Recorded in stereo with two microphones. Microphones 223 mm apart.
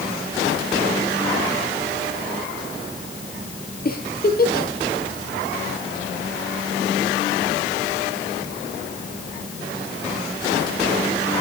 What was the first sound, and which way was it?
A giggle, 40° left (ahead or behind).